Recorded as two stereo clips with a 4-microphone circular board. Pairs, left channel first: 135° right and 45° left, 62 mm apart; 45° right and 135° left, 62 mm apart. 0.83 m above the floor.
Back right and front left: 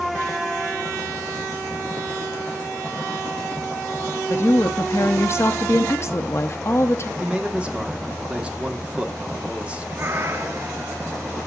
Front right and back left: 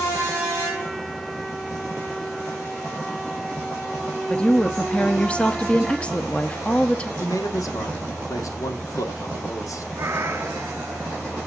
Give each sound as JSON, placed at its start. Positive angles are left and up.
{"t": 4.3, "sound": "a woman speaking", "azimuth_deg": -110, "distance_m": 0.8}
{"t": 7.2, "sound": "a man speaking", "azimuth_deg": -25, "distance_m": 1.9}
{"t": 10.0, "sound": "a cat meowing", "azimuth_deg": 90, "distance_m": 1.2}